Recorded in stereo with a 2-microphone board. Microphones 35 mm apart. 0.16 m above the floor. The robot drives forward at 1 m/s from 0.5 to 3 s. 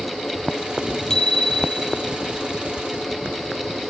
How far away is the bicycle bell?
About 3 m.